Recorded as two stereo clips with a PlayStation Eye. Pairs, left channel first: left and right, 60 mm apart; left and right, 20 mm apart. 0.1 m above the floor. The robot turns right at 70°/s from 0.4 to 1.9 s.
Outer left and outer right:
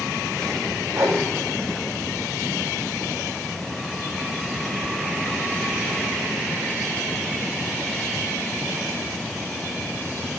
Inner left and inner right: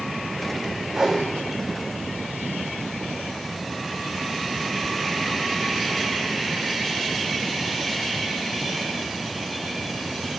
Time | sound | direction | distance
0.9 | a whoosh | 50° right (ahead or behind) | 1.2 m